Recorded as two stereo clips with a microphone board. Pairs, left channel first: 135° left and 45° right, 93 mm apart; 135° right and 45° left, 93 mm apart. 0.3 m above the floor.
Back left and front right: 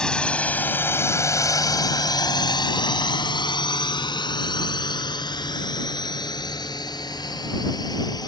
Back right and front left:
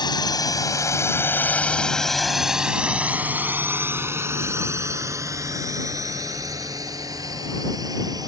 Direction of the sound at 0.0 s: 145° right.